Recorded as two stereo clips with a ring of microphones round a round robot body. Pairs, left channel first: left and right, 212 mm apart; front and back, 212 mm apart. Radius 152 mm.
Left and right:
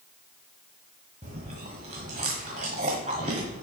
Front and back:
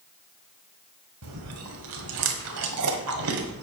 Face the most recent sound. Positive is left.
turn(degrees=-160)